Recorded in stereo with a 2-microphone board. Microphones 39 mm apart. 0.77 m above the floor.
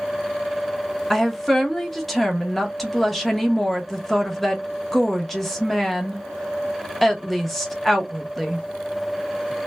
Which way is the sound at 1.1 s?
5° left (ahead or behind).